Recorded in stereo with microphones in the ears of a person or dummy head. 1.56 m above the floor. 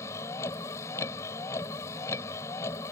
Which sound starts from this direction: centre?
A vehicle, at 0.0 s.